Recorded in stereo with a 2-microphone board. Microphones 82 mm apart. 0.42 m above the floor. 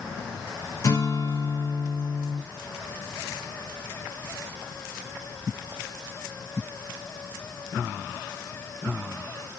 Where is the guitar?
45° left (ahead or behind), 1.7 m.